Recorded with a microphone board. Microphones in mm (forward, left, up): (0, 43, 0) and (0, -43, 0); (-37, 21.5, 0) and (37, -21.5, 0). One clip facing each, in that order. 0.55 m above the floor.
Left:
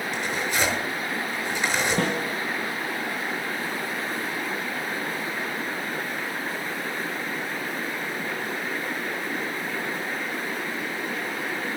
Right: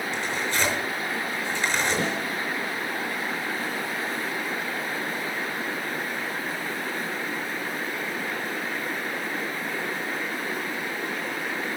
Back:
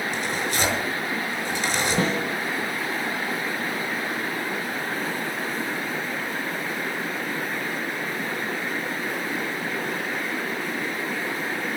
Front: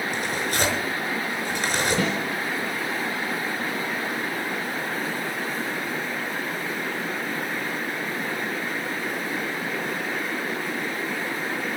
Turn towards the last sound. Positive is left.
turn(degrees=100)